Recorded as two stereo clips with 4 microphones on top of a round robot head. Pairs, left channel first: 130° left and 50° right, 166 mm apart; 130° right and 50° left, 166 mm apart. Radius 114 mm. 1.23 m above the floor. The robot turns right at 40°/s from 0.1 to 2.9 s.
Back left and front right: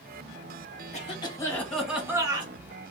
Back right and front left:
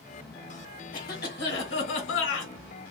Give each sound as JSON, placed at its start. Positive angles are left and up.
{"t": 0.9, "sound": "a cough", "azimuth_deg": -175, "distance_m": 1.3}